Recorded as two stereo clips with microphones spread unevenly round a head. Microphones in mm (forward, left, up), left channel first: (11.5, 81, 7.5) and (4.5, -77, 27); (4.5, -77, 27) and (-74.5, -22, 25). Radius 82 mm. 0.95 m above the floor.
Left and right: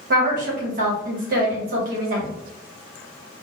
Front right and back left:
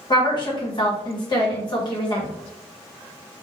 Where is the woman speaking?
65° right, 1.0 m.